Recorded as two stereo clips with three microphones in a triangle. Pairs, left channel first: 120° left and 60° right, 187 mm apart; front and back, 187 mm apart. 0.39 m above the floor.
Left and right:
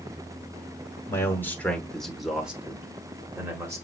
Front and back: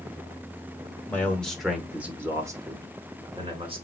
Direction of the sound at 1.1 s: 65° left.